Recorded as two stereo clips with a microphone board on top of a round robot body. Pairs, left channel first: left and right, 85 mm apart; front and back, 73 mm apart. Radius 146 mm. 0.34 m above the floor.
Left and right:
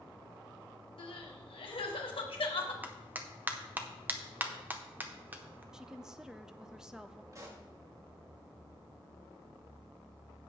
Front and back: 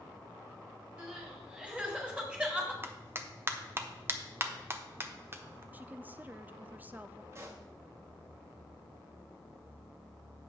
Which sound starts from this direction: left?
Crying, at 1.0 s.